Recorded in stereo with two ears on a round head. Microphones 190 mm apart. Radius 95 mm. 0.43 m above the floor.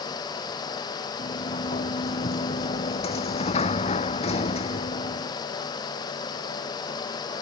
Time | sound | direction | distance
1.2 | a sliding door | 30° left (ahead or behind) | ?